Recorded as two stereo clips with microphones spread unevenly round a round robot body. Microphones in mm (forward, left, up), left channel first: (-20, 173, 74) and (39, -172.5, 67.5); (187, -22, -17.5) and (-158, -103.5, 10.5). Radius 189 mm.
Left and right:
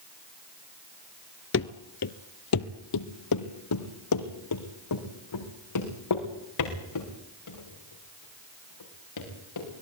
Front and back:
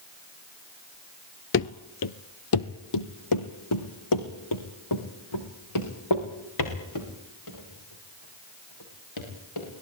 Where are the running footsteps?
60° left, 0.8 m.